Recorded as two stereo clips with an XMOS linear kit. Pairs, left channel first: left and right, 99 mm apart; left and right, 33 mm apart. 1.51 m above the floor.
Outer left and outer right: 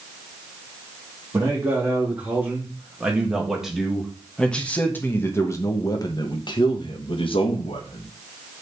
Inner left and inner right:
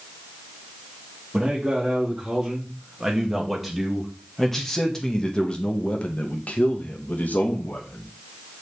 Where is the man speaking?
25° right (ahead or behind), 2.5 m; by 8.0 s 75° left (ahead or behind), 1.9 m.